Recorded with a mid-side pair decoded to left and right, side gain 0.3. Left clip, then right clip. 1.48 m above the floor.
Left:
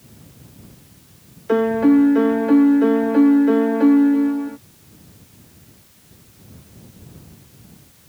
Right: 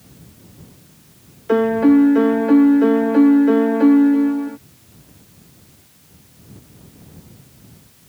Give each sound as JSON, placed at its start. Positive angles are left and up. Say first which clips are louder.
{"t": 1.5, "sound": "a piano", "louder": "right 1 dB", "azimuth_deg": -15}